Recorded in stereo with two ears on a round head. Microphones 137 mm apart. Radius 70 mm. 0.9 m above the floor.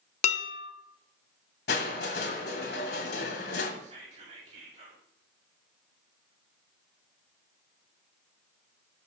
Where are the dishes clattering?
50° left (ahead or behind), 0.8 m.